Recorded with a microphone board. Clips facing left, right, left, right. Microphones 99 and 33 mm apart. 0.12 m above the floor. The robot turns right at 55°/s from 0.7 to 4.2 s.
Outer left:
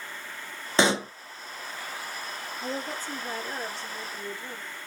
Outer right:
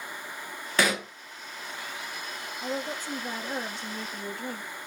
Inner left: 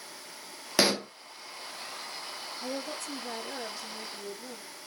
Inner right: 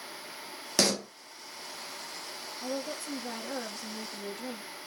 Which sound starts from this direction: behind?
A woman speaking, at 2.6 s.